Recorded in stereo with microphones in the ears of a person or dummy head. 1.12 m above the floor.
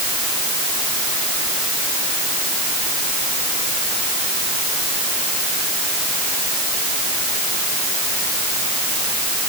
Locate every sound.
Only background noise.